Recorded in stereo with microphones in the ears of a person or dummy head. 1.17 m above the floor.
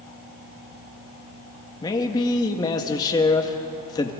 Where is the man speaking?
20° left (ahead or behind), 1.6 m.